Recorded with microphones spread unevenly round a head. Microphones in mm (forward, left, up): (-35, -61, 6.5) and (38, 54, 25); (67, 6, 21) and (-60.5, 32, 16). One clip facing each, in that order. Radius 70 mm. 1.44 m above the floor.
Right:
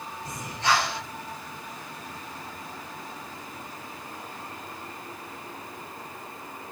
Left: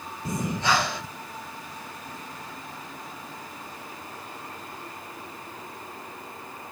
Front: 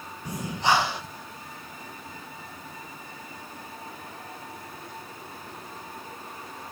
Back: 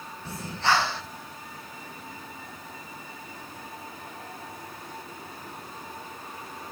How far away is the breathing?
About 1.0 m.